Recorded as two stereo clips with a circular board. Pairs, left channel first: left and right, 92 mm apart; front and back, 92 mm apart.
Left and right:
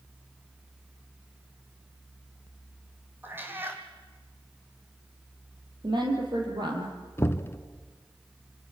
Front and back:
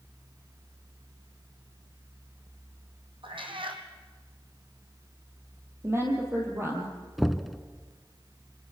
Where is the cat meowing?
155° right, 2.5 m.